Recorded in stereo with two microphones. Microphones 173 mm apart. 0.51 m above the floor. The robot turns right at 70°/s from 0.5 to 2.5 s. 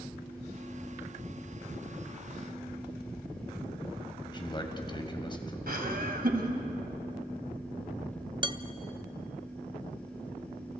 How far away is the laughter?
About 3.5 m.